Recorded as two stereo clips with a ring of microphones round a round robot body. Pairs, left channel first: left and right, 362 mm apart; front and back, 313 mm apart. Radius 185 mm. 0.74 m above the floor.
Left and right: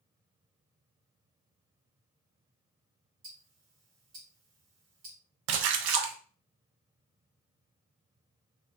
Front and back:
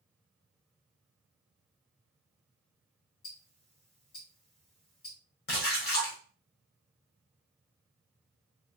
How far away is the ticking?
About 1.6 m.